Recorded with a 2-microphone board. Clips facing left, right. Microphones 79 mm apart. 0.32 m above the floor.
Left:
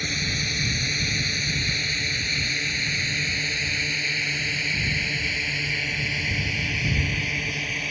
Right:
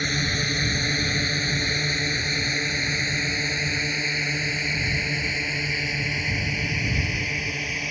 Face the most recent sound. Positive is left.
turn(degrees=-5)  # may be behind; listen again after turning